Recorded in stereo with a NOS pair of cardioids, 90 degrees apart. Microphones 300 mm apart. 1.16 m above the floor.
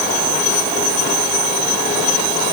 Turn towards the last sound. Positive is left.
No sound to turn to.